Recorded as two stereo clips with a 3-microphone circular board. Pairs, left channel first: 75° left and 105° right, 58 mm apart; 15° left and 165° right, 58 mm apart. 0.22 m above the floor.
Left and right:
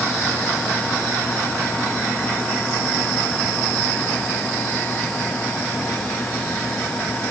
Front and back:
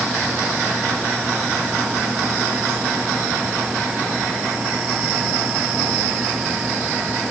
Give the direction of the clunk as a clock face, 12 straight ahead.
No clunk in this recording.